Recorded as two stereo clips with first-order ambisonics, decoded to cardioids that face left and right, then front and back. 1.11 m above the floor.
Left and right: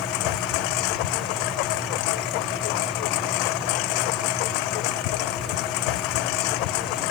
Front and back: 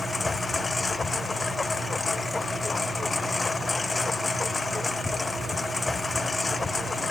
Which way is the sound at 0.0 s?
80° left.